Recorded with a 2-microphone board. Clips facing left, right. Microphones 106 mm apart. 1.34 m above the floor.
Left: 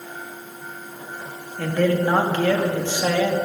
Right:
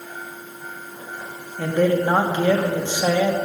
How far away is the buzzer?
No buzzer in this recording.